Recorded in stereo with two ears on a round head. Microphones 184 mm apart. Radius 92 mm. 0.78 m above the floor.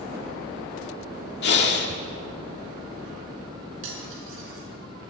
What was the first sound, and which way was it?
Breathing, 55° left (ahead or behind).